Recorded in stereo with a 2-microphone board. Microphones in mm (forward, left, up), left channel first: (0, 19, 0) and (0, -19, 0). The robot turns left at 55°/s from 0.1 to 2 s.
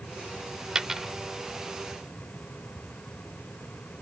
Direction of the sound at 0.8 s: 20° right (ahead or behind).